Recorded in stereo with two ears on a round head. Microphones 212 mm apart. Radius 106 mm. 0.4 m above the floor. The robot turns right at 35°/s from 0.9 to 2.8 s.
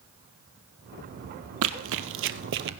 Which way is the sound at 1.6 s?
60° right (ahead or behind).